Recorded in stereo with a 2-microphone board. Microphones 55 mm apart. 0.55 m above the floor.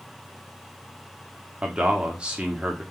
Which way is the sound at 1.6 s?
20° right (ahead or behind).